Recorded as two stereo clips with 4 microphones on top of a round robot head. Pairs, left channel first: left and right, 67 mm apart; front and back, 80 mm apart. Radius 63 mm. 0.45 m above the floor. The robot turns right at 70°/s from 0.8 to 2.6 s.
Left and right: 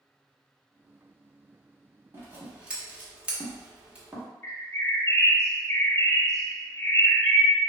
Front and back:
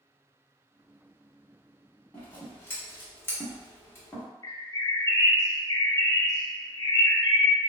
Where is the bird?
45° left, 1.0 m.